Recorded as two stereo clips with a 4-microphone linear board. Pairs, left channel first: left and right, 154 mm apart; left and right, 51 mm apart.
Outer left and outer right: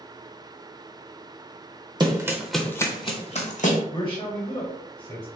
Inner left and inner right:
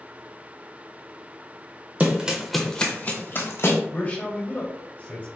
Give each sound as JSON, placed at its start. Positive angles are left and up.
{"t": 2.0, "sound": "running footsteps", "side_deg": -30, "distance_m": 0.8}
{"t": 3.9, "sound": "a man speaking", "side_deg": 35, "distance_m": 1.5}